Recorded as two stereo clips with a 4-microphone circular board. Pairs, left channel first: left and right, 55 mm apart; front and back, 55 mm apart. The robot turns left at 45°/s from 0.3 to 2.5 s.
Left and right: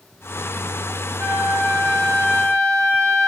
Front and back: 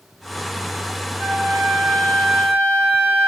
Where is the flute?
140° right, 1.6 m; by 3.3 s 160° left, 1.6 m.